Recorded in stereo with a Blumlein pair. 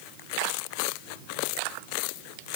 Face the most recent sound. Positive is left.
No sound to turn to.